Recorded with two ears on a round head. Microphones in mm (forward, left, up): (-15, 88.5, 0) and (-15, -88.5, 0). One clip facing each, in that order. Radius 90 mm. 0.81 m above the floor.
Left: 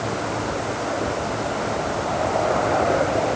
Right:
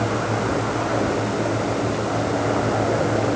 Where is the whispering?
I don't hear whispering.